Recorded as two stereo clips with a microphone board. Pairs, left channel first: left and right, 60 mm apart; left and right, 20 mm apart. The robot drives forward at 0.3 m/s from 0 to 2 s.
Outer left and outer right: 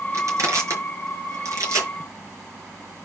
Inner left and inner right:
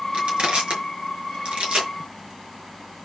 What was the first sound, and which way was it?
Crushing, 60° right (ahead or behind).